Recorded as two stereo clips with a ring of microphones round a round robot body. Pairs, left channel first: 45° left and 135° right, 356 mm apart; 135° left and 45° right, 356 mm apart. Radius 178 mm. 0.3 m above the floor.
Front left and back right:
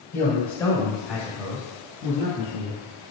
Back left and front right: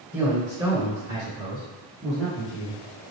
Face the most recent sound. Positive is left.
turn(degrees=-95)